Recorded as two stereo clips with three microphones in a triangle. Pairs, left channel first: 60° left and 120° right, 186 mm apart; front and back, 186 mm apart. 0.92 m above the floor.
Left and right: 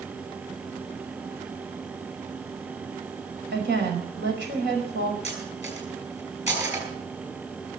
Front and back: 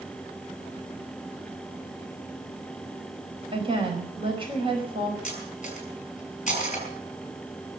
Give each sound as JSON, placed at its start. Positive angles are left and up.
{"t": 3.5, "sound": "a woman speaking", "azimuth_deg": -120, "distance_m": 4.5}
{"t": 5.2, "sound": "cutlery clinking", "azimuth_deg": -50, "distance_m": 5.5}